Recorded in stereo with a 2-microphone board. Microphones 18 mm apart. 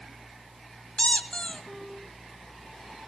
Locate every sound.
1.0 s a squeak: 65° left (ahead or behind), 1.9 m